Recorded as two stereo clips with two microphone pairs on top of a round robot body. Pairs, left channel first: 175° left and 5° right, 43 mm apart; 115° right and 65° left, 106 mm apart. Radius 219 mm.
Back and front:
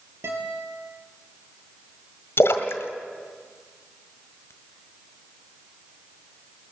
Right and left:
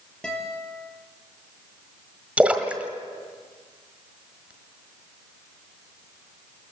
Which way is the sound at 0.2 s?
30° right.